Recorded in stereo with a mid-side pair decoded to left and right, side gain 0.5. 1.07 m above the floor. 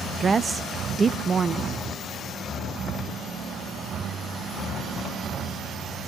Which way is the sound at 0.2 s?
30° right.